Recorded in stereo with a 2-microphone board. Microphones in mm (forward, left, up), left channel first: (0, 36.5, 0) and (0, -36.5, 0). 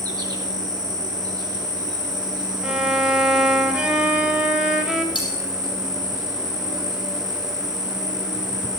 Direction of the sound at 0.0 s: 55° right (ahead or behind).